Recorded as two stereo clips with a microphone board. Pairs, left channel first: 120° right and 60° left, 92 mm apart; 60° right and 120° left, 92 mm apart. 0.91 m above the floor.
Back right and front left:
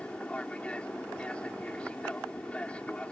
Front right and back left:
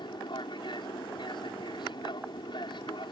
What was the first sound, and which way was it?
An aircraft, 45° right.